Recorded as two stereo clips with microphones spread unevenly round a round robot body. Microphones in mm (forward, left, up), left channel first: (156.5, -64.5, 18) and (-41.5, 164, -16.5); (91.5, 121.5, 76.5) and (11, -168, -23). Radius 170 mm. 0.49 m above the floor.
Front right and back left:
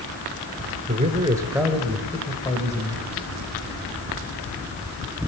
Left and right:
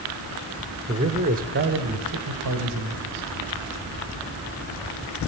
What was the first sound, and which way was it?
A man speaking, 170° right.